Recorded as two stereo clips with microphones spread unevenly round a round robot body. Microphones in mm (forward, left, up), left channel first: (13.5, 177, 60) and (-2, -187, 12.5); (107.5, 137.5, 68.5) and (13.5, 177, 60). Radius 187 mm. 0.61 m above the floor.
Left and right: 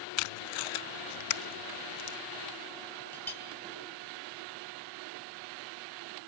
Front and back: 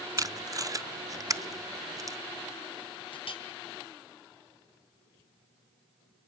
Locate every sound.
0.2 s tape being pulled: 95° left, 0.6 m
3.1 s a clink: 5° left, 3.5 m